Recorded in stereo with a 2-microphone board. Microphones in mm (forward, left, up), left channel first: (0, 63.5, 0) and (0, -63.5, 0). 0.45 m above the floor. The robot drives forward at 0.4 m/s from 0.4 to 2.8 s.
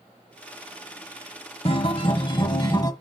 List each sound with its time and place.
1.6 s a guitar: 50° left (ahead or behind), 0.8 m; by 2.9 s 30° left (ahead or behind), 1.2 m